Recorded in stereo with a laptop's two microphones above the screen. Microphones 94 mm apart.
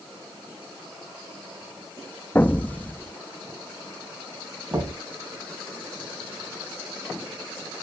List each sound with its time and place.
2.4 s an explosion: 15° left (ahead or behind), 0.5 m
4.7 s knocking: 30° right (ahead or behind), 4 m